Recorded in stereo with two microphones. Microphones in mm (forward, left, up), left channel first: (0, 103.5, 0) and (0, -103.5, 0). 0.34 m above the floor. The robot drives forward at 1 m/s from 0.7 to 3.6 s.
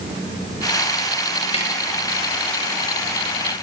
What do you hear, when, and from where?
1.5 s tapping: 30° left (ahead or behind), 6.5 m